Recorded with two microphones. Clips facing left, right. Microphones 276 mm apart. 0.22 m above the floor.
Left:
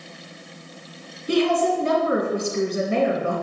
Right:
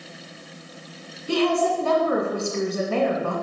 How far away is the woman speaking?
About 1.6 m.